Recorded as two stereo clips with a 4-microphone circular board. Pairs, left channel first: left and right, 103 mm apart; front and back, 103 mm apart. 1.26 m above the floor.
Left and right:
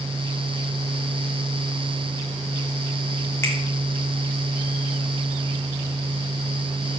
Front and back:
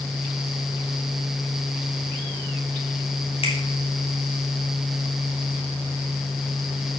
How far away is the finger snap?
About 3 m.